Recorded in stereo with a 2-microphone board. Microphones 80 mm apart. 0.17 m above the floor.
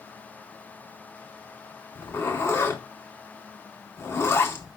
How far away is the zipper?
About 1.7 m.